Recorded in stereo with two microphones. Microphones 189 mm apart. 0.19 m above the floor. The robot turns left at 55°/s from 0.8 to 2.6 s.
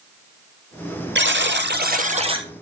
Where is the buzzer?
85° right, 1.4 m; by 2.5 s 160° right, 1.4 m.